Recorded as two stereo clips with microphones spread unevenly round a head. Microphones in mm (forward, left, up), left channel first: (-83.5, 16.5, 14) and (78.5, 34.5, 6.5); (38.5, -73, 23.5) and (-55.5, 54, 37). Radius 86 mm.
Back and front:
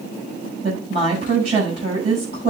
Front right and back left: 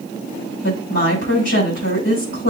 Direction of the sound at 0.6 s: 55° right.